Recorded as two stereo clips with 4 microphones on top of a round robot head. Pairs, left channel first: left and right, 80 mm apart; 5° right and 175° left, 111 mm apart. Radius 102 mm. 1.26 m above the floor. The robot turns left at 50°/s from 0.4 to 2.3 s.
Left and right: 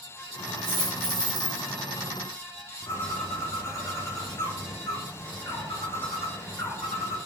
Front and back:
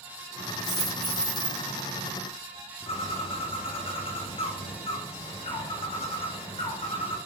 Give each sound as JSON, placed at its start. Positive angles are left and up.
{"t": 0.6, "sound": "a dropped coin", "azimuth_deg": -90, "distance_m": 1.3}
{"t": 2.9, "sound": "a bird", "azimuth_deg": 35, "distance_m": 0.9}